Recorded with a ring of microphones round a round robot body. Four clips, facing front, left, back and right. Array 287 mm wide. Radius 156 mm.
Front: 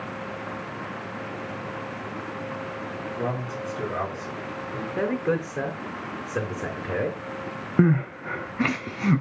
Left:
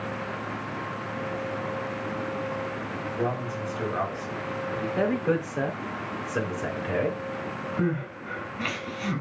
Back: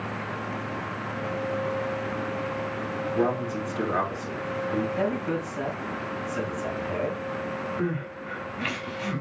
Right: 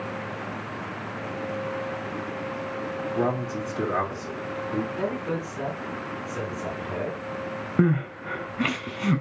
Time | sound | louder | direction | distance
3.1 | a man speaking | right 3 dB, back 5 dB | 125° right | 3 m
5.0 | a man speaking | left 4 dB, front 2 dB | 30° left | 4 m
7.8 | crying | right 6 dB, front 8 dB | 30° right | 0.9 m